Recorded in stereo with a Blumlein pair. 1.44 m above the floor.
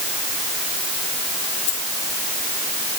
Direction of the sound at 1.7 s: 55° left.